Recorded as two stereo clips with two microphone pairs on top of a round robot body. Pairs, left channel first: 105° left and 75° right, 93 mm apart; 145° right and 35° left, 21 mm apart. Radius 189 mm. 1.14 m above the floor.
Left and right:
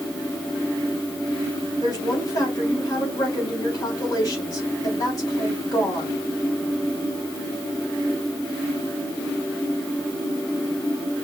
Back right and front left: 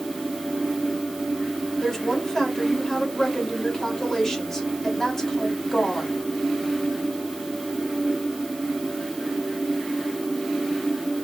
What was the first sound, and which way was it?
A woman speaking, 155° left.